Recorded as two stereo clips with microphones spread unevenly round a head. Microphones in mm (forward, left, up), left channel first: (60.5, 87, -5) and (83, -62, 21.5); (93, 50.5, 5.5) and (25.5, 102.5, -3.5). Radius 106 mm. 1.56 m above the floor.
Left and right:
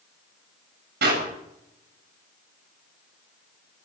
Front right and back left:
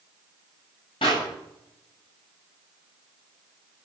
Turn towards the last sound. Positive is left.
turn(degrees=-90)